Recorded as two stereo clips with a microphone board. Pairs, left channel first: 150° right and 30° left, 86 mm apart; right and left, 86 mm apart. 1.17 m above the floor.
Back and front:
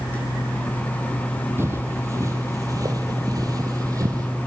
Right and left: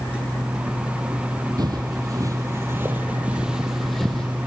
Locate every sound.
1.6 s footsteps: 80° left, 1.8 m; by 4.3 s 10° right, 1.9 m